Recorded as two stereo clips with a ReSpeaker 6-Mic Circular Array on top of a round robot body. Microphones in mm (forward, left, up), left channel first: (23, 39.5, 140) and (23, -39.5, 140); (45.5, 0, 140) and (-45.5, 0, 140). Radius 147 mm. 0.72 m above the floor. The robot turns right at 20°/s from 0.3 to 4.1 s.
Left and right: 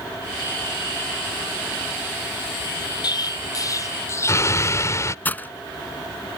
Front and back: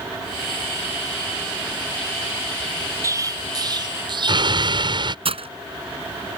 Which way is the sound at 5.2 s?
160° left.